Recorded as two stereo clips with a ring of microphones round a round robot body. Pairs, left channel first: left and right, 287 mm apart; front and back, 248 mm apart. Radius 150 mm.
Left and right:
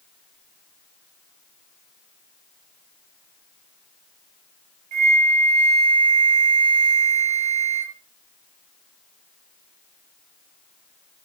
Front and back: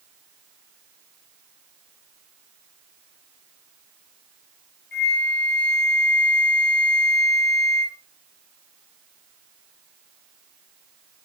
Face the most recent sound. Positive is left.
turn(degrees=-60)